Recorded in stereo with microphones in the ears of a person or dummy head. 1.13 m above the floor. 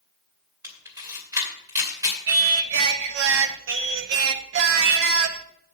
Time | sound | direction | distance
0.6 | a camera shutter | 15° right (ahead or behind) | 2.5 m
2.3 | singing | 75° right (ahead or behind) | 0.8 m